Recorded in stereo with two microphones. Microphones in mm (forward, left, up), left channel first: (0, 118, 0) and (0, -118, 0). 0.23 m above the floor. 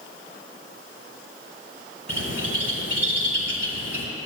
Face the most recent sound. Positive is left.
turn(degrees=-80)